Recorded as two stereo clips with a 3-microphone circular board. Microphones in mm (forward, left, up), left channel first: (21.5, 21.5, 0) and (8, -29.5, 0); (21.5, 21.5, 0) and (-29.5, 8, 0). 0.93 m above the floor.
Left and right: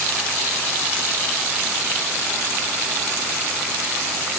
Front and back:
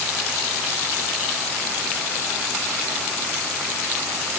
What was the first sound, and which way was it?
Only background noise.